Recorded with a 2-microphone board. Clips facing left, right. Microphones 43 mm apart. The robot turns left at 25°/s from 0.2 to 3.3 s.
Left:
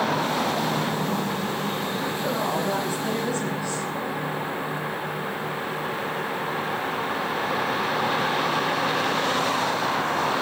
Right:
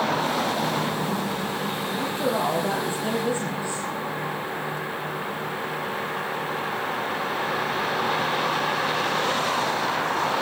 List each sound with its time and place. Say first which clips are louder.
2.0 s a woman speaking: right 4 dB; 125° right, 7.5 m; by 3.9 s 160° right, 7.5 m